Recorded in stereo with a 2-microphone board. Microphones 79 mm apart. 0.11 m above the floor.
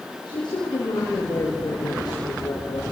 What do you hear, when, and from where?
0.2 s a woman speaking: 75° left (ahead or behind), 6 m; by 2.8 s 65° left (ahead or behind), 6 m